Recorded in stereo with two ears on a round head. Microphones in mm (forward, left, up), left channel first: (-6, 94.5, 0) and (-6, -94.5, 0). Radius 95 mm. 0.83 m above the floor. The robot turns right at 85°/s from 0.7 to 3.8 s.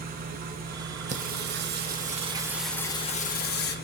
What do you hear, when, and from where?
0.0 s an engine running: 135° right, 2.5 m; by 3.9 s 130° left, 2.5 m
1.1 s singing: 135° right, 1.2 m; by 3.8 s 95° left, 1.2 m